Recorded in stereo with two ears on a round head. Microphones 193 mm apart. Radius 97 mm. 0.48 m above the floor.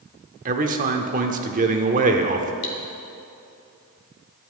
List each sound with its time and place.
0.5 s a man speaking: 40° right (ahead or behind), 0.9 m
2.6 s cutlery clinking: 60° left (ahead or behind), 1.7 m